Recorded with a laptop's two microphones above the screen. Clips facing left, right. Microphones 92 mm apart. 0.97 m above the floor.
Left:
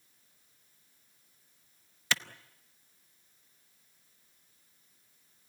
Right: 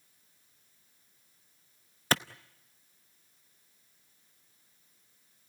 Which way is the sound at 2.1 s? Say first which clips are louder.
Right 5 dB; 40° right (ahead or behind).